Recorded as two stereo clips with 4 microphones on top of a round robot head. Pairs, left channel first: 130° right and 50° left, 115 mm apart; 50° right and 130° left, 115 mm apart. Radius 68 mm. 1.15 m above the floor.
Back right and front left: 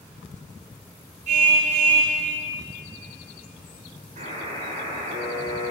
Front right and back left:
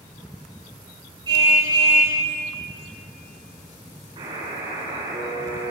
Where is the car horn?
70° left, 8.5 m.